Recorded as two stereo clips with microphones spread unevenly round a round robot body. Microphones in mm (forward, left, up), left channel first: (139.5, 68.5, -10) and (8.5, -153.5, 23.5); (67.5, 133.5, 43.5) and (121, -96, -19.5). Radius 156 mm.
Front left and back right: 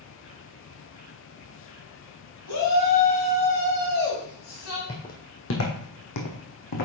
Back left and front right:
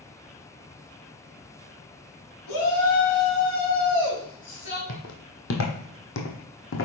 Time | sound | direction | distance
2.5 | a shout | 80° left | 4 m
4.9 | footsteps | 130° left | 1.1 m